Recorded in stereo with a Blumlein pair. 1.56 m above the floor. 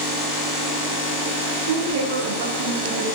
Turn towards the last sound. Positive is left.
turn(degrees=-60)